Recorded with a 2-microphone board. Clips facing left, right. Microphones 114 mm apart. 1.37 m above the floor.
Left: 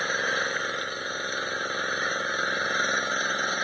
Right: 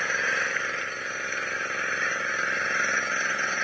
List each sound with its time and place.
0.0 s an engine running: 15° left (ahead or behind)